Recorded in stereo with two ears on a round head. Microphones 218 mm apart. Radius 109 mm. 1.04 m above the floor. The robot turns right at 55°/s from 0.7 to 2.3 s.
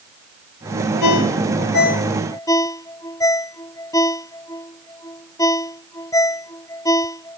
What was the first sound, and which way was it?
A ringtone, 85° left.